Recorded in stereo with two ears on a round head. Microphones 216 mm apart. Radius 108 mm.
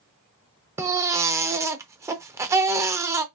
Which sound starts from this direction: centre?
A baby crying, at 0.8 s.